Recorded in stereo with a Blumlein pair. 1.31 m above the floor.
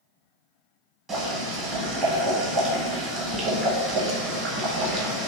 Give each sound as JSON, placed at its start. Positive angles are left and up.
{"t": 1.1, "sound": "boiling", "azimuth_deg": -20, "distance_m": 0.9}